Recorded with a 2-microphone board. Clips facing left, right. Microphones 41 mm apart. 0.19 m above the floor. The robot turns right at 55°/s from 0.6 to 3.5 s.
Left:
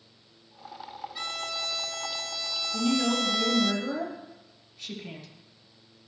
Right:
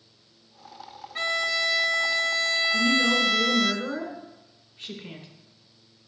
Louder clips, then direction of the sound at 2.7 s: Right 2 dB; 175° right.